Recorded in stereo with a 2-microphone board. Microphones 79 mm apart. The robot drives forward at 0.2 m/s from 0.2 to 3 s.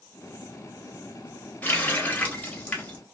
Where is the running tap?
20° left (ahead or behind), 1.0 m; by 3.0 s 15° left (ahead or behind), 1.3 m.